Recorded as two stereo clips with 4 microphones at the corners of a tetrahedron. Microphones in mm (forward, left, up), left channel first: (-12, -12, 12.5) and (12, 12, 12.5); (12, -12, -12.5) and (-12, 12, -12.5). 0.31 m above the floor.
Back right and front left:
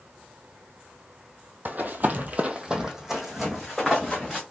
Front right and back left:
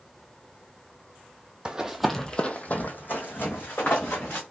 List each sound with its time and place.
1.6 s running footsteps: 70° left, 0.6 m; by 4.4 s 50° right, 1.6 m